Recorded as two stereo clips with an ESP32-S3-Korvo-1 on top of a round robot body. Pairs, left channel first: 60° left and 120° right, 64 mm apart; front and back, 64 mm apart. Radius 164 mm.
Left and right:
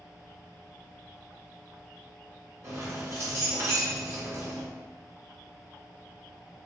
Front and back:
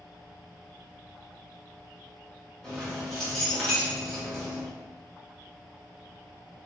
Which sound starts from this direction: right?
Keys jangling, at 2.6 s.